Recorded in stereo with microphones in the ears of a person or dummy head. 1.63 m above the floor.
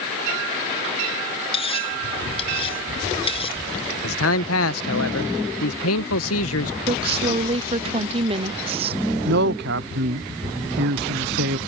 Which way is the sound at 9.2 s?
55° right (ahead or behind).